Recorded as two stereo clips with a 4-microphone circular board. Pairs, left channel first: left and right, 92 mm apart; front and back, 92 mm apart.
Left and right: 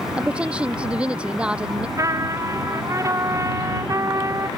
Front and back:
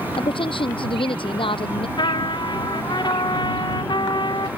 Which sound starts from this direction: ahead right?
A trumpet, at 2.0 s.